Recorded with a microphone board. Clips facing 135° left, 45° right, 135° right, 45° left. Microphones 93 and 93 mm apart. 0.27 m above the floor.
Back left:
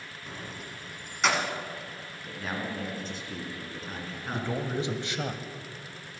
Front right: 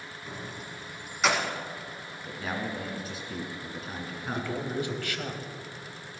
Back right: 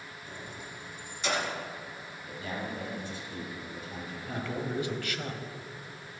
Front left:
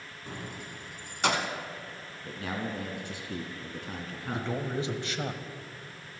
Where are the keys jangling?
45° left, 1.4 m.